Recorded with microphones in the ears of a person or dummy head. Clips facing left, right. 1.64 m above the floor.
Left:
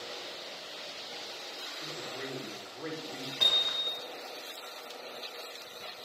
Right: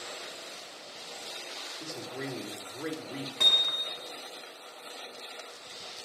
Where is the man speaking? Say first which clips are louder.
Right 3 dB; 60° right (ahead or behind), 5 m.